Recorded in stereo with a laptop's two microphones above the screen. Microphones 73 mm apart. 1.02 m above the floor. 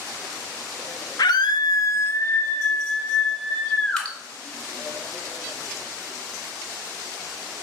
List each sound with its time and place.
1.2 s a scream: 65° left (ahead or behind), 0.7 m; by 4.1 s 10° left (ahead or behind), 3 m
4.0 s dripping: 10° left (ahead or behind), 2.5 m